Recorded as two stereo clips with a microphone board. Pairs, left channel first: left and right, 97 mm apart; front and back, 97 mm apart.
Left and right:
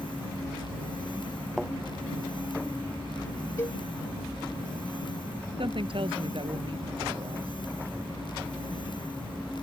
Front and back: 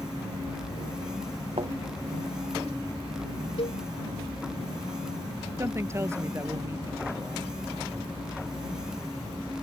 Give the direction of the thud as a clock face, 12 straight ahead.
6 o'clock.